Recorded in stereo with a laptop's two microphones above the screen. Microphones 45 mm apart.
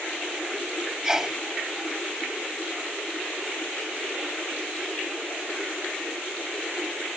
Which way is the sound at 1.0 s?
15° right (ahead or behind).